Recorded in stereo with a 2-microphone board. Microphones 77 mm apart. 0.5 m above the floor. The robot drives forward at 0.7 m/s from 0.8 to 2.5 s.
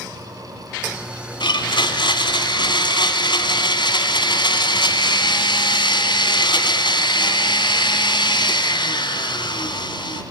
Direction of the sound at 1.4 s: 80° left.